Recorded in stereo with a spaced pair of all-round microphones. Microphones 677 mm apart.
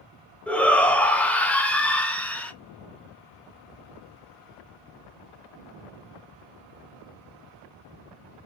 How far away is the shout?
About 0.6 m.